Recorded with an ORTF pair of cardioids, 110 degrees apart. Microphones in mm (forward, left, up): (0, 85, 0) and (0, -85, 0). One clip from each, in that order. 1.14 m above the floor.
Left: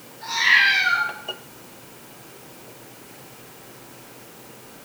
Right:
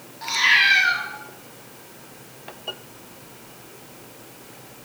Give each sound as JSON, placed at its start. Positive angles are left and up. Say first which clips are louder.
{"t": 0.2, "sound": "a cat meowing", "louder": "even", "azimuth_deg": -45, "distance_m": 1.2}